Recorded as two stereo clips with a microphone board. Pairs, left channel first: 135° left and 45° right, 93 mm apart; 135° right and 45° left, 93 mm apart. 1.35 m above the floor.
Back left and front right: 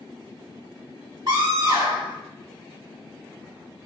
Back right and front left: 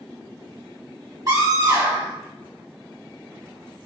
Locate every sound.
1.3 s a scream: 5° right, 1.6 m